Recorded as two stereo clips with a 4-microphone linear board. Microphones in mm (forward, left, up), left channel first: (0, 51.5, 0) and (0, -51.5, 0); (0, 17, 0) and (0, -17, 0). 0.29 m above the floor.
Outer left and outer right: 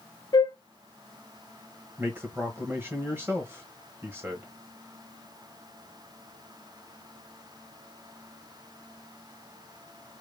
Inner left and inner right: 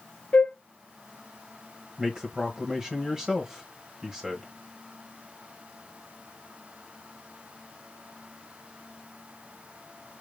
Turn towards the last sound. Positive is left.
turn(degrees=-20)  # may be behind; listen again after turning